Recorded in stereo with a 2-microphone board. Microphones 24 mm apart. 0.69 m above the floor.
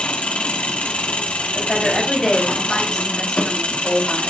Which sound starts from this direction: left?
An engine running, at 0.0 s.